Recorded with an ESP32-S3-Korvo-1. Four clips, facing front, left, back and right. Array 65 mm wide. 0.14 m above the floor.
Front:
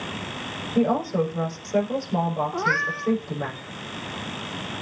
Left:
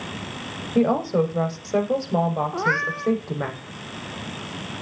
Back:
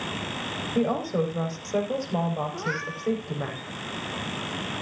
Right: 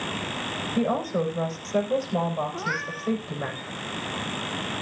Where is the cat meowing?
55° left, 1.6 m.